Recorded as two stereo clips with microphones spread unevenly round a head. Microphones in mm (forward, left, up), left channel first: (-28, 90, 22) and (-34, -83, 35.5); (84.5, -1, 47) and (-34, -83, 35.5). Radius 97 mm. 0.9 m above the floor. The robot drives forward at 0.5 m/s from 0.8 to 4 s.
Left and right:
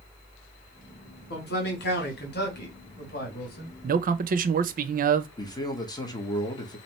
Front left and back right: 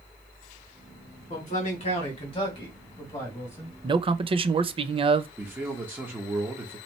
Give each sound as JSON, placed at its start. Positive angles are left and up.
{"t": 1.3, "sound": "a man speaking", "azimuth_deg": 75, "distance_m": 2.0}
{"t": 3.8, "sound": "a man speaking", "azimuth_deg": -100, "distance_m": 0.5}
{"t": 5.4, "sound": "a man speaking", "azimuth_deg": 145, "distance_m": 1.1}